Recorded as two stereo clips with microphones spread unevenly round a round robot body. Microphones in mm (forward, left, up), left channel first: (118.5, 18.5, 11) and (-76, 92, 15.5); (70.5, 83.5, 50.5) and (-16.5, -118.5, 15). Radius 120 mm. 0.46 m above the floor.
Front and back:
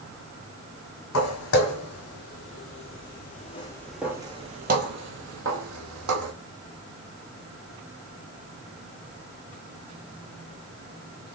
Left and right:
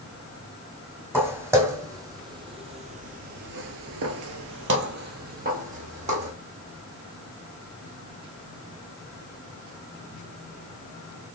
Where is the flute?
I don't hear a flute.